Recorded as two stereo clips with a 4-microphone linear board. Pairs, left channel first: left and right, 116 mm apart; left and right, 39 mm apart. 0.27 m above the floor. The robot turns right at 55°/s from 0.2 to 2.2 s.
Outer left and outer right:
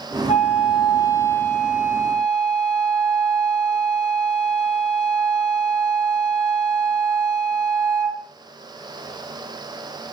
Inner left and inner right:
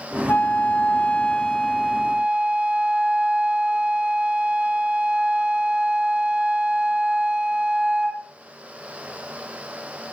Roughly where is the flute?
Left.